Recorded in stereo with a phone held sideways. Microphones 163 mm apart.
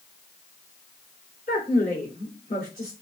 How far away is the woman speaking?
About 3.5 m.